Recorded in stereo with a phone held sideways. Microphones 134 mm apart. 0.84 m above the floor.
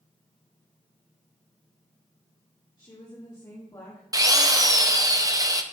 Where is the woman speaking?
35° left (ahead or behind), 3 m; by 4.0 s 25° left (ahead or behind), 2 m.